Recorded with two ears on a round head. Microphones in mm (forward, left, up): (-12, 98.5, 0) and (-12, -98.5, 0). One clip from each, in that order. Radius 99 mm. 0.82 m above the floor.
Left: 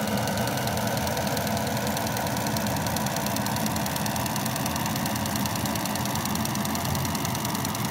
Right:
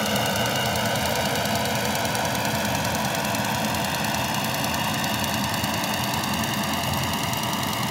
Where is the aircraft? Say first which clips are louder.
Right 4 dB; 75° right (ahead or behind).